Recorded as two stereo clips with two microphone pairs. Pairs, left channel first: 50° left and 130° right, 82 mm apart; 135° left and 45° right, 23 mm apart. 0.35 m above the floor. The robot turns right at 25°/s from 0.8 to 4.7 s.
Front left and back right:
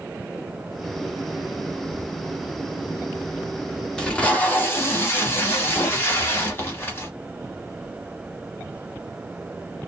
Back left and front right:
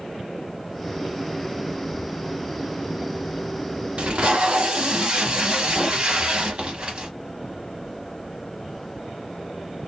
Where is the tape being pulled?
25° right, 1.0 m; by 7.1 s 10° right, 1.0 m.